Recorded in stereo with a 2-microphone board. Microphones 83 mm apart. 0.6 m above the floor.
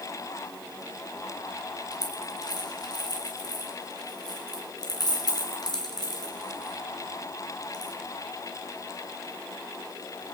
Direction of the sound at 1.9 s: 55° left (ahead or behind).